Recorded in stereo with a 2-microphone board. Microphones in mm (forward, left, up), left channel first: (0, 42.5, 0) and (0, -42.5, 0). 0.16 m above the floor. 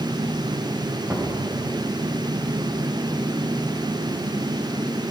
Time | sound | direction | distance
1.1 | knocking | 30° right (ahead or behind) | 5.5 m